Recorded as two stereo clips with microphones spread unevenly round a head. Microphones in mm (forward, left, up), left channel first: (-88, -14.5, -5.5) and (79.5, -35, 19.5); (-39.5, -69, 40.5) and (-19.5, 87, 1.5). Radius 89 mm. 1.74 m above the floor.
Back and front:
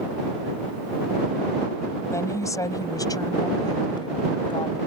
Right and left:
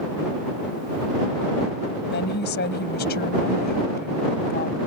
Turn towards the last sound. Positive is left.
turn(degrees=-125)